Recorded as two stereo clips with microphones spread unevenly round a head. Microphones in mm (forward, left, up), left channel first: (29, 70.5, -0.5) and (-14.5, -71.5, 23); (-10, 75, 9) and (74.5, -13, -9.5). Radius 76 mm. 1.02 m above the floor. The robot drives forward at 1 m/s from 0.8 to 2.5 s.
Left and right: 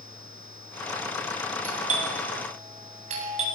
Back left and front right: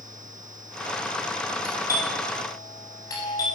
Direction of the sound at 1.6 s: 155° right.